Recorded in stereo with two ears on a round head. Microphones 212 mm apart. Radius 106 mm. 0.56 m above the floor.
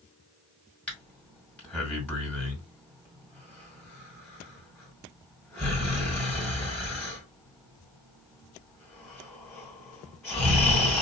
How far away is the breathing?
About 2.5 m.